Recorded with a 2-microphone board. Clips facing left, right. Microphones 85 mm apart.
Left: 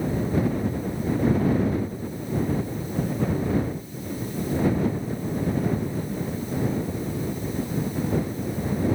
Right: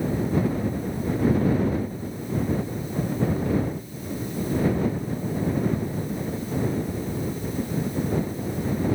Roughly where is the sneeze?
I don't hear a sneeze.